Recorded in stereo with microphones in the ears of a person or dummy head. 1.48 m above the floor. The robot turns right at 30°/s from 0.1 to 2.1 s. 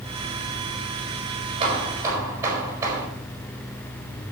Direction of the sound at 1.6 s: 35° right (ahead or behind).